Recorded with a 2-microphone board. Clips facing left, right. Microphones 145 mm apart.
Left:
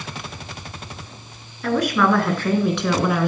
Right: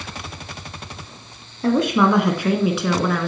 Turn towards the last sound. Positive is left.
turn(degrees=10)  # may be behind; listen again after turning